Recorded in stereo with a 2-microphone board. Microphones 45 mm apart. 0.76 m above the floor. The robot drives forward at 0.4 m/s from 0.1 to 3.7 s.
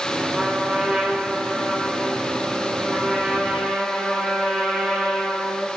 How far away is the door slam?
No door slam in this recording.